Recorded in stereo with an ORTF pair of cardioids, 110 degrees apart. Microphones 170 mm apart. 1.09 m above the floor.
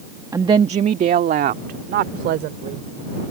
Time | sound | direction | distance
0.3 | a woman speaking | 20° right | ?